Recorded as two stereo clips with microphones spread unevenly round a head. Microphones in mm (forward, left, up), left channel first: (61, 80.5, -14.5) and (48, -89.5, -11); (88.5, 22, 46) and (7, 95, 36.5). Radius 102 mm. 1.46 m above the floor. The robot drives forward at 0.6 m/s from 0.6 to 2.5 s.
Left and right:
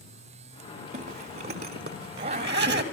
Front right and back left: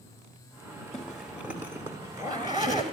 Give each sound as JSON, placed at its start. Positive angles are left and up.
{"t": 0.9, "sound": "a zipper", "azimuth_deg": -120, "distance_m": 1.5}